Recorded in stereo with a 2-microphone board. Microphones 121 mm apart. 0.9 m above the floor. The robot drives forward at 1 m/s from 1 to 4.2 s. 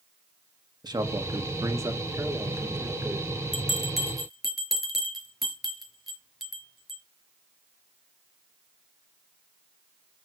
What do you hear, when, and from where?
0.8 s a man speaking: 35° right (ahead or behind), 1.9 m; by 3.3 s 15° right (ahead or behind), 4 m
3.5 s a bell: centre (ahead or behind), 3.5 m